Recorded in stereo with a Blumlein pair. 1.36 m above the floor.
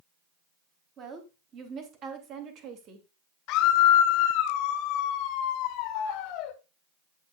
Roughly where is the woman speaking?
Ahead right.